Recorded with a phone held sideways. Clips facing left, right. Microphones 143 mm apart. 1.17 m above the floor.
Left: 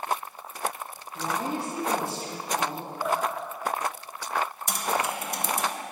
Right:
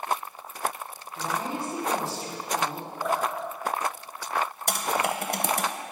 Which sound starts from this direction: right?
Typing on a keyboard, at 4.7 s.